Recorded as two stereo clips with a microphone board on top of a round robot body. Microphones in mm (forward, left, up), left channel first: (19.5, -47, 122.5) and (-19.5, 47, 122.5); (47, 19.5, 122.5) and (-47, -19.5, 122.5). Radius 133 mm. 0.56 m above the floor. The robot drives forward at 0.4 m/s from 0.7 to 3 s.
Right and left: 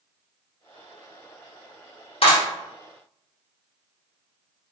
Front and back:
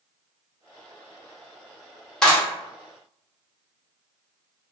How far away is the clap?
About 1.3 m.